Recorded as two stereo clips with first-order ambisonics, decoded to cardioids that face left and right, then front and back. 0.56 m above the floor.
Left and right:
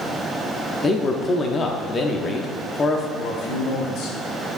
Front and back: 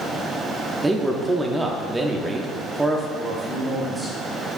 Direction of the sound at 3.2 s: 100° left.